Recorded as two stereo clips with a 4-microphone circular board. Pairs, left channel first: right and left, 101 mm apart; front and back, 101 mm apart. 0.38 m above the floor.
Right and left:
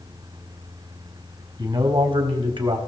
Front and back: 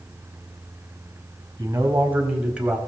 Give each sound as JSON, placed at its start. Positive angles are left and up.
{"t": 1.6, "sound": "a man speaking", "azimuth_deg": 120, "distance_m": 3.0}